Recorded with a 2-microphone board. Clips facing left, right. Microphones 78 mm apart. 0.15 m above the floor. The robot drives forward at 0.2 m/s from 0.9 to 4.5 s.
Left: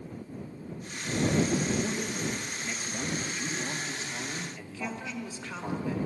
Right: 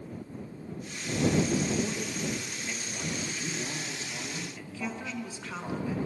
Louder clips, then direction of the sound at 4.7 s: Right 1 dB; 5° right (ahead or behind).